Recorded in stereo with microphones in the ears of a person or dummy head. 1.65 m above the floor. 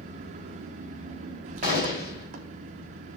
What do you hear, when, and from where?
0.0 s an engine running: 40° right (ahead or behind), 0.8 m
1.6 s a gunshot: 55° left (ahead or behind), 2.5 m